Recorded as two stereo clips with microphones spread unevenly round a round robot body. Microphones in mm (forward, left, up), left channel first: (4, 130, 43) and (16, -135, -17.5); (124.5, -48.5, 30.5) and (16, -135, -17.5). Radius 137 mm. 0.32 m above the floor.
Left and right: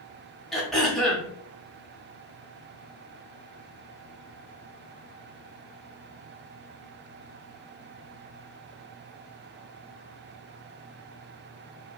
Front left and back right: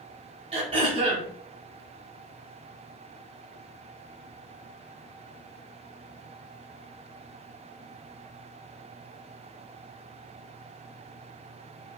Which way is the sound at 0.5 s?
170° right.